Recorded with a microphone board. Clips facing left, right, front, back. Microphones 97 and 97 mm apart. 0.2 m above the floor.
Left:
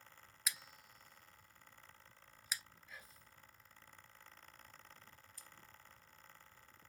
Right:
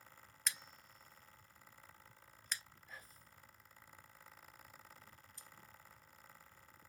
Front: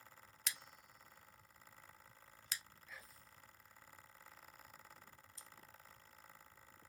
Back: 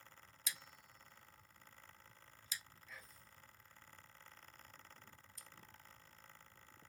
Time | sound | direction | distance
0.5 | scissors | 5° left | 0.5 m
2.9 | whispering | 85° right | 1.2 m
5.4 | scissors | 40° right | 0.6 m